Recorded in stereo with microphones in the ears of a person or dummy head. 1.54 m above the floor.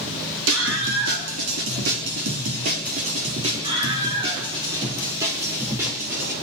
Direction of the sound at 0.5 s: 85° right.